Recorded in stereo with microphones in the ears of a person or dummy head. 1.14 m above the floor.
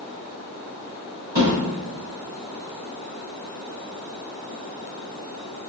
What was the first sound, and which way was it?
A thud, 10° right (ahead or behind).